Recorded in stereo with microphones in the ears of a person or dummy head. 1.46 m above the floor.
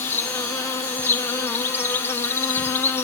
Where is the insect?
10° left (ahead or behind), 0.7 m.